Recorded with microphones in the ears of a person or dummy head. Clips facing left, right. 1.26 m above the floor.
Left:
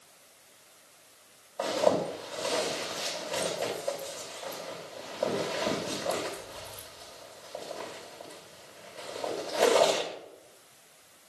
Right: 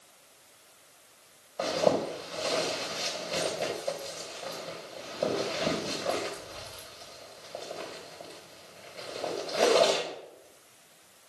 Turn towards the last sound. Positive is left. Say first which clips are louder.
# even
turn(degrees=-20)  # may be behind; listen again after turning